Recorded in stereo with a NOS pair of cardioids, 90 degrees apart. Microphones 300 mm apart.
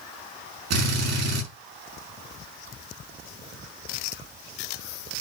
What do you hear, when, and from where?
0.7 s a drill: 65° right, 6.5 m